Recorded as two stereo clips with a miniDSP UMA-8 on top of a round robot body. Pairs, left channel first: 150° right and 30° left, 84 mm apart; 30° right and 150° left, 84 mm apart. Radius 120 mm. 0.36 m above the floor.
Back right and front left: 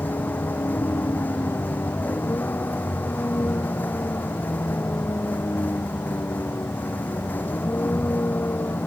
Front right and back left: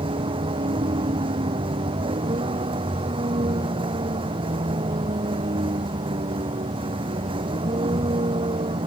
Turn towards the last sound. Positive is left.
turn(degrees=140)